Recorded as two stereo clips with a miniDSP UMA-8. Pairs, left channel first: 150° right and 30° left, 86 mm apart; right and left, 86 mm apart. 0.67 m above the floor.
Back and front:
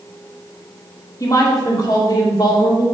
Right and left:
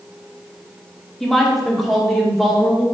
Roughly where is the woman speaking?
Behind.